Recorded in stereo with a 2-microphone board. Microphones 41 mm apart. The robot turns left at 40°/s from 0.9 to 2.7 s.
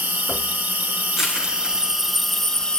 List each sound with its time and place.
0.0 s an insect: 125° right, 1.2 m; by 2.8 s 160° left, 1.2 m
1.2 s crushing: 10° right (ahead or behind), 8.5 m; by 2.7 s 65° right (ahead or behind), 8.5 m